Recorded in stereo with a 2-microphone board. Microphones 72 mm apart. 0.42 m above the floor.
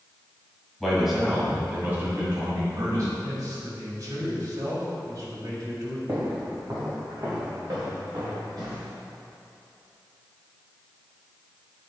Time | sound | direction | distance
0.8 | a man speaking | 5° left (ahead or behind) | 2.5 m
3.2 | a man speaking | 45° right (ahead or behind) | 1.9 m
6.1 | footsteps | 35° right (ahead or behind) | 2 m